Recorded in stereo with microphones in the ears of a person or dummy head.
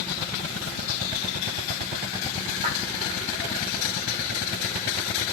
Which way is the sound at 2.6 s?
35° right (ahead or behind).